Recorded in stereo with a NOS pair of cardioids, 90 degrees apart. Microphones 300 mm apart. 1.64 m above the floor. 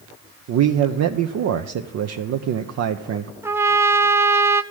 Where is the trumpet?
10° right, 0.6 m.